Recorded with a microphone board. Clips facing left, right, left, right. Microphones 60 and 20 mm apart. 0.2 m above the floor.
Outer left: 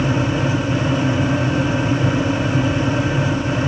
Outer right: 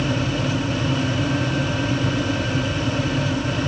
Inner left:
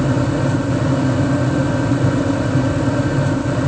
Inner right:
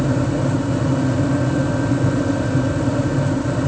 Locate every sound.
Only background noise.